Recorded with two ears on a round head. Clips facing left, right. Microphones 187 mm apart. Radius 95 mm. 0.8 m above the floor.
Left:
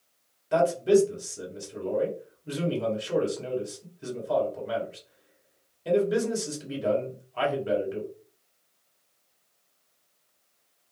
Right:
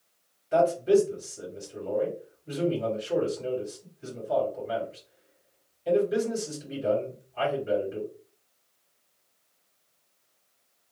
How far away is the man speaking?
About 2.5 m.